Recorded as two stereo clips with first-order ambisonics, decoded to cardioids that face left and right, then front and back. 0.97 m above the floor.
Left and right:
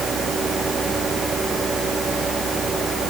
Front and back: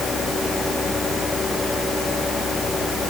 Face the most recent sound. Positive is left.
No sound to turn to.